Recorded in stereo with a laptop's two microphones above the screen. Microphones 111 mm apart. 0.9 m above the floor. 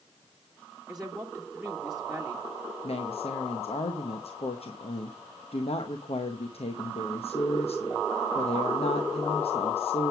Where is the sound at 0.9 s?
5° right (ahead or behind), 1.3 m.